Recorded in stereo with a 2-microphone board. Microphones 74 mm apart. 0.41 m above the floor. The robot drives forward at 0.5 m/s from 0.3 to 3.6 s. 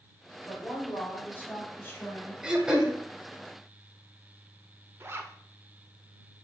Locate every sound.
0.5 s a woman speaking: 20° left (ahead or behind), 2.5 m; by 2.3 s 30° left (ahead or behind), 1.8 m
2.4 s throat clearing: 10° right (ahead or behind), 0.7 m
5.0 s a zipper: 35° right (ahead or behind), 0.5 m